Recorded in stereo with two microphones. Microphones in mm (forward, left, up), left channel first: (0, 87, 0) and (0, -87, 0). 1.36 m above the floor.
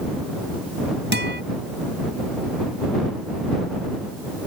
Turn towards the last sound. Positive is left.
turn(degrees=-85)